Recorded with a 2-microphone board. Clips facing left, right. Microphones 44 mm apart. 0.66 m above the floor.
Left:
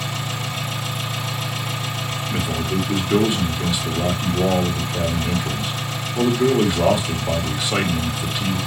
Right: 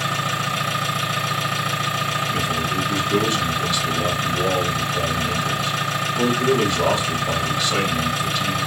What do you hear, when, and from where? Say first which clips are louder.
0.0 s an engine running: right 5 dB; 80° right, 3.5 m
2.3 s a man speaking: right 1 dB; 15° left (ahead or behind), 2.5 m